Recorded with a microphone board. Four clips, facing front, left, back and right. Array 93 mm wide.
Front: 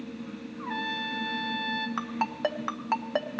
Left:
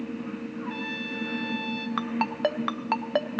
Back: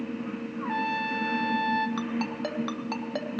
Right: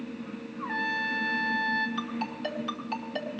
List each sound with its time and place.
0.6 s a trumpet: 135° right, 1.5 m
2.0 s a ringtone: 65° left, 0.7 m